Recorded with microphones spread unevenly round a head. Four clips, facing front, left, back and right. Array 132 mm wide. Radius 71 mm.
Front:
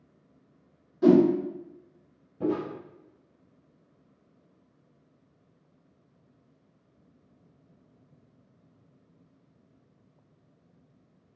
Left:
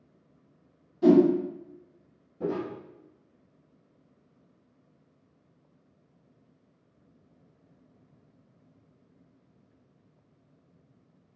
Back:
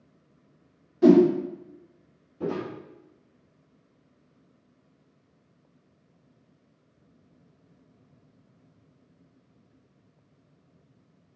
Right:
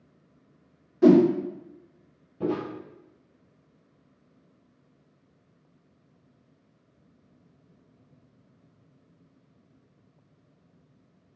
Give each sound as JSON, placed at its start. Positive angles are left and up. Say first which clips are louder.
{"t": 1.0, "sound": "a whoosh", "louder": "right 2 dB, back 3 dB", "azimuth_deg": -115, "distance_m": 1.0}
{"t": 2.4, "sound": "footsteps", "louder": "right 2 dB, front 2 dB", "azimuth_deg": -105, "distance_m": 1.4}